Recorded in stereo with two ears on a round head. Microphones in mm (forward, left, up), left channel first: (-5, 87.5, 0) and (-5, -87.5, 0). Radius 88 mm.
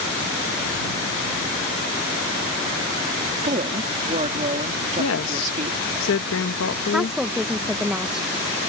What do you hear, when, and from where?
3.4 s a woman speaking: 35° right (ahead or behind)
5.0 s a woman speaking: 70° left (ahead or behind)
6.9 s a woman speaking: 5° right (ahead or behind)